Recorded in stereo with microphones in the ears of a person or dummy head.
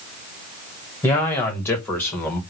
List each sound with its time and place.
1.0 s a man speaking: 15° left (ahead or behind), 2.5 m; by 2.4 s 10° left (ahead or behind), 1.8 m